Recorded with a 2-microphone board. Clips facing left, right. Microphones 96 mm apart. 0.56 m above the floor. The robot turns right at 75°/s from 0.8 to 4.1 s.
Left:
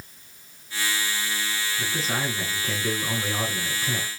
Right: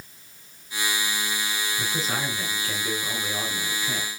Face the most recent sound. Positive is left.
turn(degrees=145)